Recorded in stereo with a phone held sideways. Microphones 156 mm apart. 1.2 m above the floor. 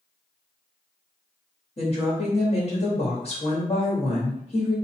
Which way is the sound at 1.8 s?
45° left (ahead or behind).